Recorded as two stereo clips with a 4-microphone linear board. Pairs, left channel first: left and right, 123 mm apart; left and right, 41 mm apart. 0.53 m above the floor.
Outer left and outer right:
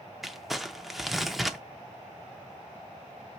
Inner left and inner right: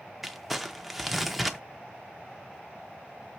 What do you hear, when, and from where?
0.2 s crumpling: centre (ahead or behind), 0.6 m